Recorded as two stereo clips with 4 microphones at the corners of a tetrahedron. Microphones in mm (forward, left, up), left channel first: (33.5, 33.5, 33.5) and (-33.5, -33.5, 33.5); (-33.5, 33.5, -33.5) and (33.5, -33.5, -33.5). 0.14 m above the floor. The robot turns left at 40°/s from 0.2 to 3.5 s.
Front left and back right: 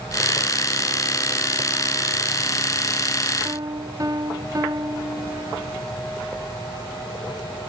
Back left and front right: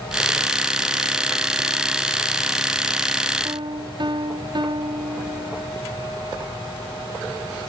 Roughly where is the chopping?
No chopping in this recording.